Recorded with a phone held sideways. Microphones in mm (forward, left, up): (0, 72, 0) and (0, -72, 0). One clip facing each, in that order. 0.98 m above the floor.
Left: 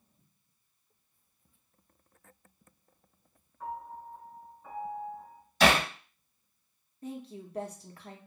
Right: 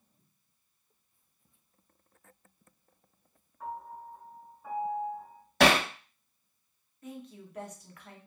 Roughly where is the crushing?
No crushing in this recording.